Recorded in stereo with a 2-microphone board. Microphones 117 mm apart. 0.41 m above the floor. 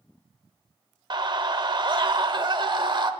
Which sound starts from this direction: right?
A scream, at 1.1 s.